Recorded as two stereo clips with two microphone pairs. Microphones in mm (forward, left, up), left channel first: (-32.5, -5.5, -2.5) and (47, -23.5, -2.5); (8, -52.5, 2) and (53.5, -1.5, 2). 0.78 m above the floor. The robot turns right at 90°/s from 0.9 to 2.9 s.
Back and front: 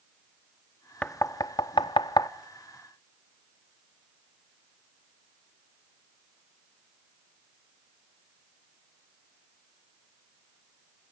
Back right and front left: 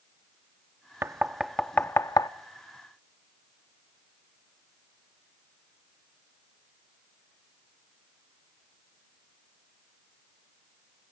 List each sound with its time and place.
1.0 s knocking: 95° left, 0.5 m; by 2.3 s 150° right, 0.5 m